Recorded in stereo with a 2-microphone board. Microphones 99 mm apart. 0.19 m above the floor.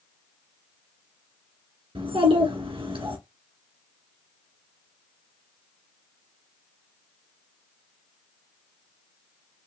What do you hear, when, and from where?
1.9 s a child speaking: 65° right (ahead or behind), 2 m